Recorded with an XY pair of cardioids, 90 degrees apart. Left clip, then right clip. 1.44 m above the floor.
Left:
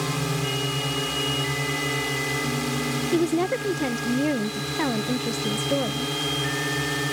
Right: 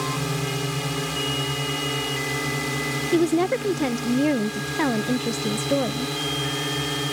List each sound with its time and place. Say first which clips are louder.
0.0 s a drone: even; 5° right
3.1 s a woman speaking: right 3 dB; 25° right